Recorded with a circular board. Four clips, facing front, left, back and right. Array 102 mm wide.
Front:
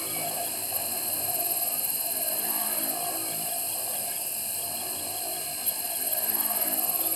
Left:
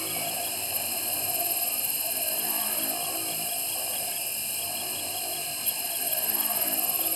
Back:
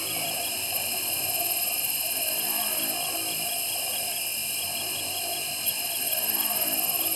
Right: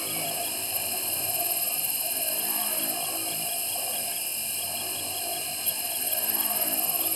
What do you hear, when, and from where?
0.0 s an insect: straight behind, 1.1 m